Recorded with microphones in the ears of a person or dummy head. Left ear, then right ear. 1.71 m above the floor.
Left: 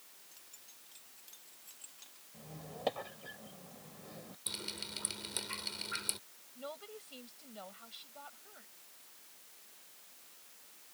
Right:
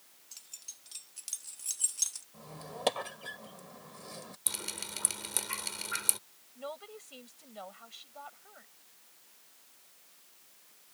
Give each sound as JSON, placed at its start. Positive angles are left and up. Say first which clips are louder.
{"t": 0.3, "sound": "keys jangling", "louder": "right 13 dB", "side_deg": -45}
{"t": 2.3, "sound": "a squeak", "louder": "right 5 dB", "side_deg": -50}
{"t": 4.5, "sound": "dripping", "louder": "right 2 dB", "side_deg": -30}
{"t": 6.5, "sound": "a woman speaking", "louder": "right 4 dB", "side_deg": -25}